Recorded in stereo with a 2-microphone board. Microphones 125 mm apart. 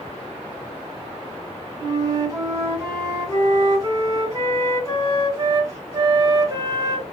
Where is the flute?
25° right (ahead or behind), 1.7 m.